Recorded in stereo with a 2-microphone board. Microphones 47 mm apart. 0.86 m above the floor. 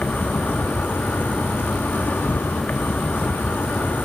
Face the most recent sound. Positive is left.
turn(degrees=50)  # may be behind; listen again after turning